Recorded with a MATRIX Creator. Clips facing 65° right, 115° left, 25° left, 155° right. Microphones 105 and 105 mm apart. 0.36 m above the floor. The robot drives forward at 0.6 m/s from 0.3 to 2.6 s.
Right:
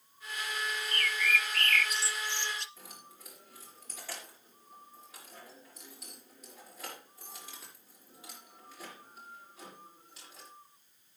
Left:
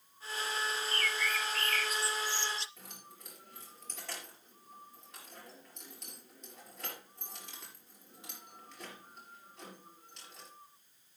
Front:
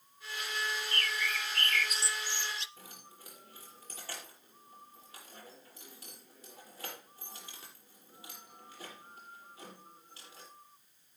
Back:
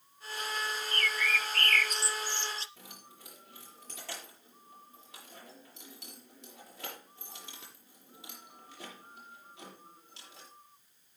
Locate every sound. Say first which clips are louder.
0.9 s a bird: right 2 dB, back 3 dB; 30° right, 1.0 m; by 2.7 s 105° right, 0.5 m
2.8 s keys jangling: right 1 dB, even; 155° right, 6.5 m